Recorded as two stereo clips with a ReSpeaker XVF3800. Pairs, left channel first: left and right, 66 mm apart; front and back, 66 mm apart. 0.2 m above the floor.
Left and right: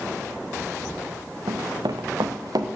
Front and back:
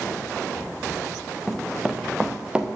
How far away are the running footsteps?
About 0.8 m.